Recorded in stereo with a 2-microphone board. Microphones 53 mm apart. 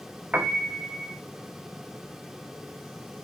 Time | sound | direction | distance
0.3 | a piano | 35° right (ahead or behind) | 0.6 m